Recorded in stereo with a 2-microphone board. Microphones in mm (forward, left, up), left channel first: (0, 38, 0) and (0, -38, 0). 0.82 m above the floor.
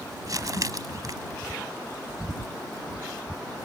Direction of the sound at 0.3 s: 55° right (ahead or behind).